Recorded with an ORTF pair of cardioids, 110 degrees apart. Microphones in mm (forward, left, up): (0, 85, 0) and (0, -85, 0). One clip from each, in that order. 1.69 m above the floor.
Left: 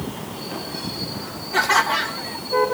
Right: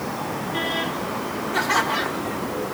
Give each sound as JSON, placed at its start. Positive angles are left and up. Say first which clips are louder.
{"t": 1.5, "sound": "laughter", "louder": "left 4 dB", "azimuth_deg": 20}